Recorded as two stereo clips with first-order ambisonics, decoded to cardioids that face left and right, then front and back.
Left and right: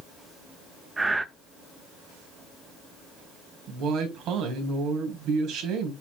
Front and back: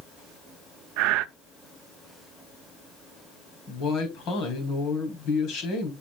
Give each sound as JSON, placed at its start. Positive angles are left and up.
{"t": 1.0, "sound": "breathing", "azimuth_deg": -170, "distance_m": 0.6}
{"t": 3.7, "sound": "a woman speaking", "azimuth_deg": -45, "distance_m": 3.5}